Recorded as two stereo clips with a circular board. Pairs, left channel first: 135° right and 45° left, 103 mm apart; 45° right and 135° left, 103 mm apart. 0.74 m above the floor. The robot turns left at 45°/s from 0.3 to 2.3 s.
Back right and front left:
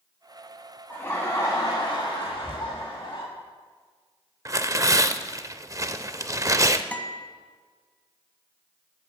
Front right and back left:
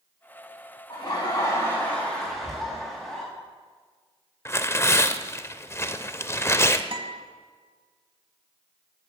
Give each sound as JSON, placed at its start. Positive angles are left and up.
{"t": 0.9, "sound": "laughter", "azimuth_deg": -70, "distance_m": 1.3}
{"t": 2.2, "sound": "whispering", "azimuth_deg": -30, "distance_m": 3.5}
{"t": 4.5, "sound": "tearing paper", "azimuth_deg": 5, "distance_m": 0.5}
{"t": 6.9, "sound": "a guitar", "azimuth_deg": 150, "distance_m": 0.9}